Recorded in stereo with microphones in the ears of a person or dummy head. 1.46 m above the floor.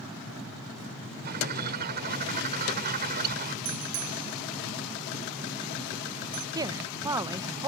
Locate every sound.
1.2 s a bird: 60° right (ahead or behind)
3.6 s a bicycle bell: 90° right
6.5 s a woman speaking: 15° right (ahead or behind)